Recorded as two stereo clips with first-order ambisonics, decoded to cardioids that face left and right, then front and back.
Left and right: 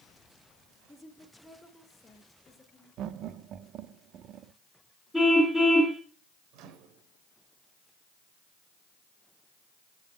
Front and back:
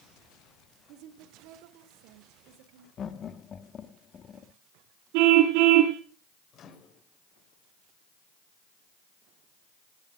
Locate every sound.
0.9 s a woman speaking: 175° left, 1.5 m
3.0 s laughter: 55° right, 0.9 m
5.1 s a car horn: 175° right, 3 m
6.5 s a microwave: 55° right, 2.0 m